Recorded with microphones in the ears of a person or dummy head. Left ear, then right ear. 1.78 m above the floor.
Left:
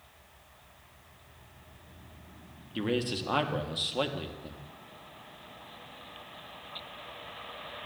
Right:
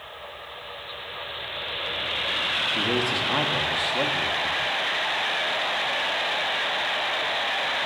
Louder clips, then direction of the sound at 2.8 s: Right 9 dB; 10° left (ahead or behind).